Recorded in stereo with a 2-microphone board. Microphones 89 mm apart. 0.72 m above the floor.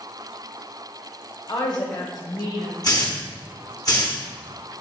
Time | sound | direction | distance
1.5 | a woman speaking | 60° left (ahead or behind) | 2.5 m
2.8 | a hiss | 45° left (ahead or behind) | 1.7 m